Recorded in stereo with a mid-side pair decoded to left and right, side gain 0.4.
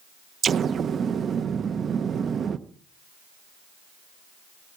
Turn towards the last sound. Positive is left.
turn(degrees=-55)